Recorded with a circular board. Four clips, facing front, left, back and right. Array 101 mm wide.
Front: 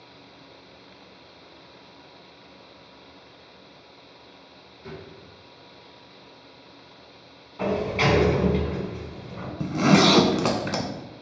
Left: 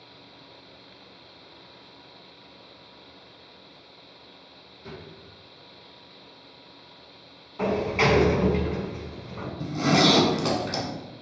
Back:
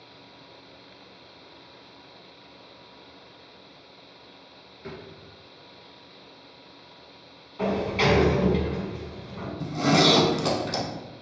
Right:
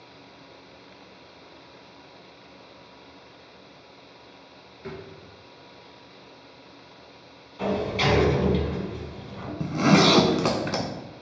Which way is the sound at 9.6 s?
40° right.